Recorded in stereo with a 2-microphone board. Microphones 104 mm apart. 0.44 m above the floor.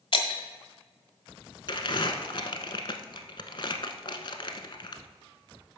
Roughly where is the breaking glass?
Left.